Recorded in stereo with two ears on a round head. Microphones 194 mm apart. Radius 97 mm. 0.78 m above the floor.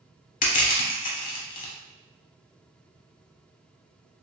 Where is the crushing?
40° left (ahead or behind), 0.9 m.